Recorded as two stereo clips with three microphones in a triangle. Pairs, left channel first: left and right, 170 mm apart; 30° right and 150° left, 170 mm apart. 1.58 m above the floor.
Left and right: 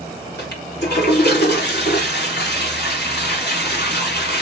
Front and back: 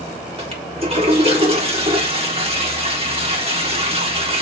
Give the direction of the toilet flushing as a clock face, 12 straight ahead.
9 o'clock.